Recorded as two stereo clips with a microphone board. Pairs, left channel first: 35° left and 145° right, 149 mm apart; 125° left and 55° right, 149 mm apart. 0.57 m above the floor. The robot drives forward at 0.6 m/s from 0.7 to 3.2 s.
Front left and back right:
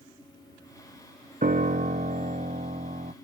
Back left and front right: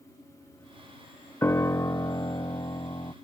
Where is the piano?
165° right; by 3.1 s 175° right.